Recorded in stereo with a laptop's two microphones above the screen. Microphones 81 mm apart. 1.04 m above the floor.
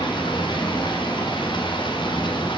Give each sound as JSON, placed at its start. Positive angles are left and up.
{"t": 0.0, "sound": "running water", "side_deg": 80, "distance_m": 3.0}